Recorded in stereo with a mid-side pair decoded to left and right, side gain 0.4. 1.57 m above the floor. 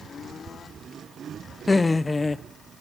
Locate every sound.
1.7 s laughter: 30° left, 0.7 m